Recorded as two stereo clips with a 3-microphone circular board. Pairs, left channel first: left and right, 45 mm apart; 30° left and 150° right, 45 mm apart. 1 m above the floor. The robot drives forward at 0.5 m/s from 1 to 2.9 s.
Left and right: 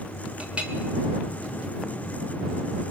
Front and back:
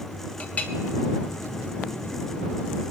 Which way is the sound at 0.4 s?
25° right.